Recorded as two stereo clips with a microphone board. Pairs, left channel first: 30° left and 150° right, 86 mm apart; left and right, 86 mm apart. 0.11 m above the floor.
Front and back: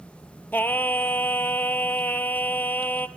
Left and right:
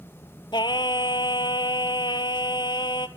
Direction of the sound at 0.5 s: 95° left.